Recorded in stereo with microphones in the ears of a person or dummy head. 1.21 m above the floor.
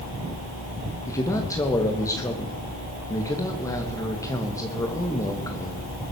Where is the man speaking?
15° left (ahead or behind), 1.9 m.